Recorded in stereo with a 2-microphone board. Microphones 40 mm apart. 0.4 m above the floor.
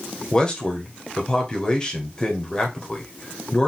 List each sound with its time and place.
0.3 s a man speaking: 20° left (ahead or behind), 1.6 m